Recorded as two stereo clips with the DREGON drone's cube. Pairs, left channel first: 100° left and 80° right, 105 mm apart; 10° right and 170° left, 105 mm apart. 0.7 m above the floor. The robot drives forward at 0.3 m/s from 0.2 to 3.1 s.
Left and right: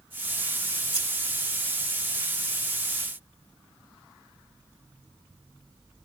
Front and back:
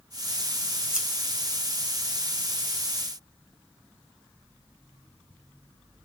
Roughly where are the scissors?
Right.